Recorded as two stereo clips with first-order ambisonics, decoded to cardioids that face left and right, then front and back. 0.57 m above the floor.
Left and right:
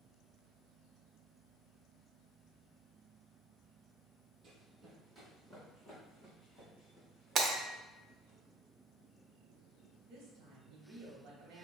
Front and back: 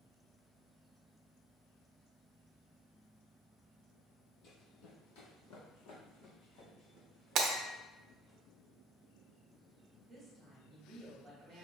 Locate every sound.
4.4 s running footsteps: 35° right, 1.2 m; by 8.3 s 20° left, 3.5 m
7.3 s breaking glass: 145° right, 0.6 m
10.1 s a woman speaking: 105° right, 1.0 m